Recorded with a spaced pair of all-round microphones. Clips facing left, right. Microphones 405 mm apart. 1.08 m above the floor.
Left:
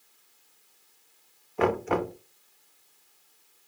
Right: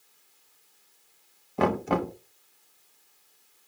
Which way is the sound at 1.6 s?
55° right (ahead or behind).